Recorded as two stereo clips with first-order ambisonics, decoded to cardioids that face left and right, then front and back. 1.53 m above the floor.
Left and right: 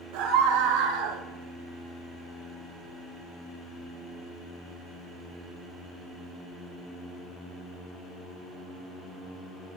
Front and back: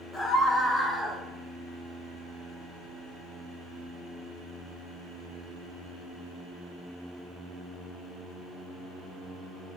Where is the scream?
95° right, 2.5 m; by 1.2 s 100° right, 1.5 m.